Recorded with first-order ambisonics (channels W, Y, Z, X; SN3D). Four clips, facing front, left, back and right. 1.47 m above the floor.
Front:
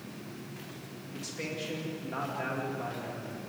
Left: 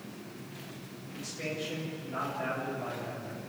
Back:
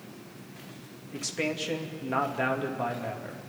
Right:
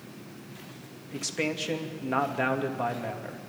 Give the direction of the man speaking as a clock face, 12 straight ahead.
4 o'clock.